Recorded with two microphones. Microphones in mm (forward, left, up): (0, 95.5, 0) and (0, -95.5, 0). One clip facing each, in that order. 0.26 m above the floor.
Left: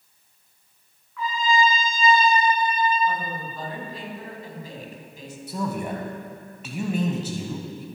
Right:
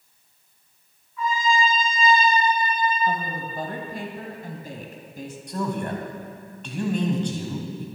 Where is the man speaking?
5° left (ahead or behind), 1.8 m.